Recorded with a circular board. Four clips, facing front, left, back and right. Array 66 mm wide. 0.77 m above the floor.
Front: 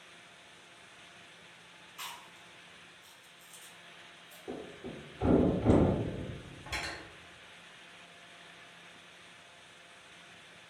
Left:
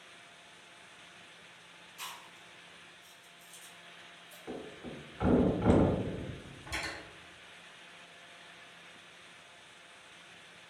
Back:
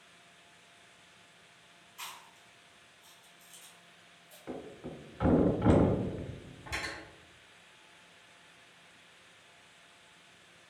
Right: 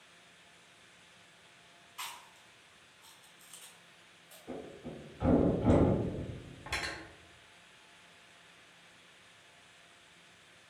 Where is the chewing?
80° right, 1.5 m.